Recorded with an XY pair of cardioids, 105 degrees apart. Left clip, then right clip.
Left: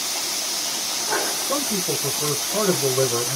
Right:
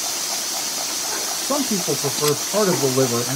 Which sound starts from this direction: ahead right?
A man speaking, at 1.4 s.